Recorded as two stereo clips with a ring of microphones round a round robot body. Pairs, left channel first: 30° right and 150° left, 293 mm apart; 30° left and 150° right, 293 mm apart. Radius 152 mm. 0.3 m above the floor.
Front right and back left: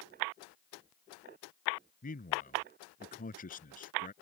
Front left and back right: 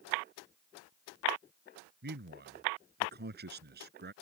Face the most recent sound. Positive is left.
turn(degrees=-95)